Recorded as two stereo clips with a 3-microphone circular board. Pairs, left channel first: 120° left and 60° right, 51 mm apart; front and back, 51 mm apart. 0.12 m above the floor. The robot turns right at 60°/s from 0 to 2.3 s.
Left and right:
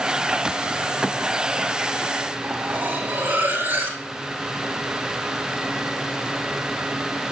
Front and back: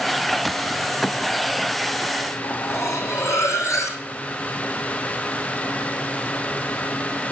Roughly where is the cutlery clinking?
Ahead.